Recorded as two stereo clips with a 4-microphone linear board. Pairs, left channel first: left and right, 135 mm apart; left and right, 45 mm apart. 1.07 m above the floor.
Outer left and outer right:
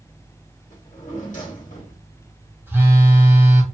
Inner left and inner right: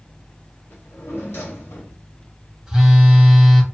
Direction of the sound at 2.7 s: 15° right (ahead or behind).